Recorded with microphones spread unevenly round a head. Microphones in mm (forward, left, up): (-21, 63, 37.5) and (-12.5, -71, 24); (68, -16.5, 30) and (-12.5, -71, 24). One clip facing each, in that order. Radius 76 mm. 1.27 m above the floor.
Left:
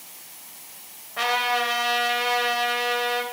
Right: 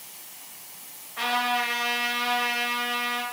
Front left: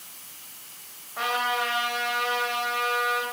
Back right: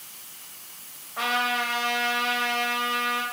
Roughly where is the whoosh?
I don't hear a whoosh.